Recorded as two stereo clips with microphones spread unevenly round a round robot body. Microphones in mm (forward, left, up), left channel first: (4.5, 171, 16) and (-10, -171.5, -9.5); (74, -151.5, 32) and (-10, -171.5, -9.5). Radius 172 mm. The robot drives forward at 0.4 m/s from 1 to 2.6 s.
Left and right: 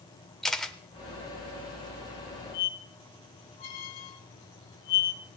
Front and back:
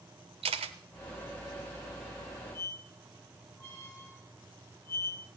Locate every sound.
0.4 s a camera shutter: 175° left, 0.7 m
2.5 s a squeak: 95° left, 1.7 m